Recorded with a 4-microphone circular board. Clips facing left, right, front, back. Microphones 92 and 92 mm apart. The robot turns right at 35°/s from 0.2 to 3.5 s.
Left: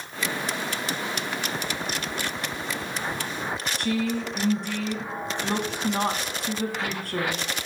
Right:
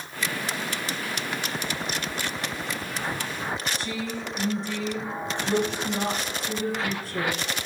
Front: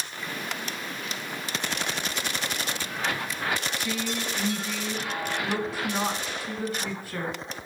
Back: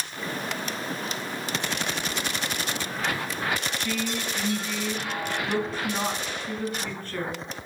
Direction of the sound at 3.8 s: 80° left.